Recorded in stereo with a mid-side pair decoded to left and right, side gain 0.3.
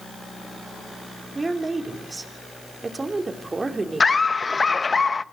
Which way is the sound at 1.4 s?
35° right.